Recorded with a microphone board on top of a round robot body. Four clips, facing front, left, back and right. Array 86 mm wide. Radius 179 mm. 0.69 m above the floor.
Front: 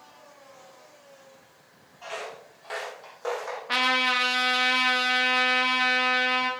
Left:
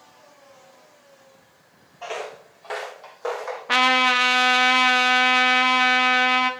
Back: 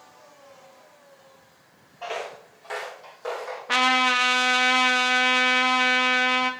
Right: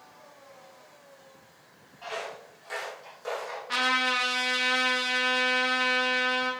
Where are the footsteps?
135° left, 1.2 m; by 3.6 s 80° left, 3 m.